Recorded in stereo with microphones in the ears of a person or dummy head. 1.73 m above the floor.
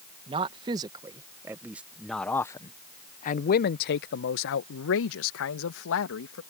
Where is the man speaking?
25° right (ahead or behind); by 6.4 s 70° left (ahead or behind).